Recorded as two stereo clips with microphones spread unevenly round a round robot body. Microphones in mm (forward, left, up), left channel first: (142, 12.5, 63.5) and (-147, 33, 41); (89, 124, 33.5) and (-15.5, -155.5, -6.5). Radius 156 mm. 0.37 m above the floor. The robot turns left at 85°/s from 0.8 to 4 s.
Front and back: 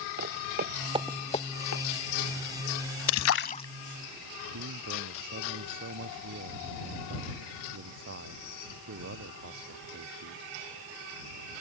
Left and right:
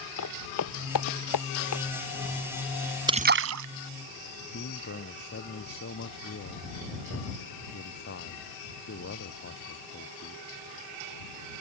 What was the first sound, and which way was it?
Footsteps, 120° left.